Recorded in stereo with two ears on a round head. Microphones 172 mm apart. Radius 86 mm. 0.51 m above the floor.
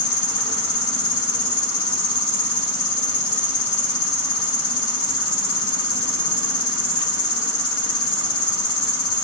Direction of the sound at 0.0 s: 75° left (ahead or behind).